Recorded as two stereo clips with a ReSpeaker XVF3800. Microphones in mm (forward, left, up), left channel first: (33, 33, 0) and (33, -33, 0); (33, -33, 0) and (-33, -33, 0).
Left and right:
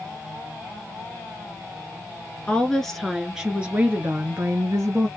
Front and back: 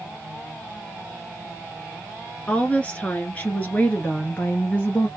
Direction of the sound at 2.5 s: 40° left.